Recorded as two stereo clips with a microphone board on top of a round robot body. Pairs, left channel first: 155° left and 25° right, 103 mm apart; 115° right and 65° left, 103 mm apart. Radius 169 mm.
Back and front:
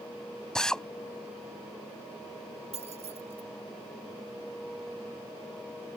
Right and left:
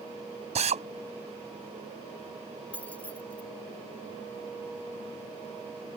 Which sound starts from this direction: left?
A drill, at 0.6 s.